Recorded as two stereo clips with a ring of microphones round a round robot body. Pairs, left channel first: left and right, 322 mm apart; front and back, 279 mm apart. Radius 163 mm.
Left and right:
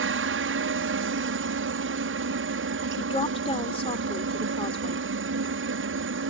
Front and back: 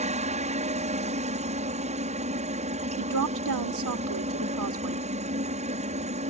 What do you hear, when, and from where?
0.0 s a helicopter: 120° right
3.0 s a woman speaking: 165° left